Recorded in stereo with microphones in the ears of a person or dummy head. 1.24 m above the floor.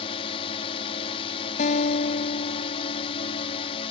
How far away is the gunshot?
I don't hear a gunshot.